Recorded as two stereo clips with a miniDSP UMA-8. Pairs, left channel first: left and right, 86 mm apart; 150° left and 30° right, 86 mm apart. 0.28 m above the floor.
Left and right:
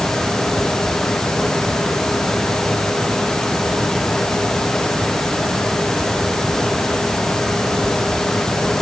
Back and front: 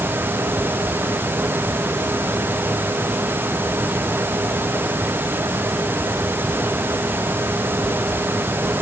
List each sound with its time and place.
Only background noise.